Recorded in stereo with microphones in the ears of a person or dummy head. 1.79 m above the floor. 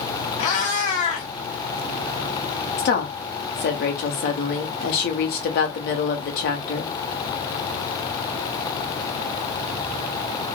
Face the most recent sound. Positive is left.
turn(degrees=45)  # may be behind; listen again after turning